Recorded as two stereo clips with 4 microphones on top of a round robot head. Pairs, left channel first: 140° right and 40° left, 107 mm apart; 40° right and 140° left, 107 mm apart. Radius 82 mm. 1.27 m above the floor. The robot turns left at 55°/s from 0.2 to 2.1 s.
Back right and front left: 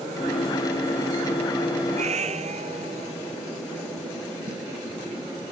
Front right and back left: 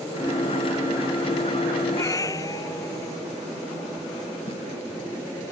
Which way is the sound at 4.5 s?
5° right.